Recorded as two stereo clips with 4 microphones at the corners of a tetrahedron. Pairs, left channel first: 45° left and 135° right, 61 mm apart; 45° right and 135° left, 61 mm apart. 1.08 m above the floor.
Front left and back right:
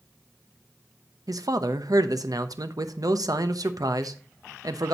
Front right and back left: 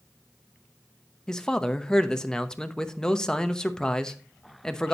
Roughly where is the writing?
I don't hear writing.